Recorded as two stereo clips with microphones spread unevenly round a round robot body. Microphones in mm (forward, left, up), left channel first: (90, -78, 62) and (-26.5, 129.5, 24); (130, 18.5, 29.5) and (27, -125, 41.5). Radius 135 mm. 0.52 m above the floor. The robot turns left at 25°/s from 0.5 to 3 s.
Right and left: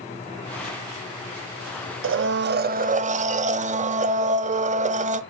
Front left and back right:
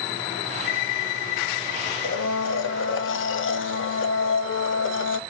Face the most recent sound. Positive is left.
turn(degrees=55)